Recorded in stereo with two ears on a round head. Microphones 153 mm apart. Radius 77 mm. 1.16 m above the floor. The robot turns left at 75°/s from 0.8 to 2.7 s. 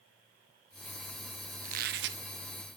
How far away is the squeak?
About 0.5 m.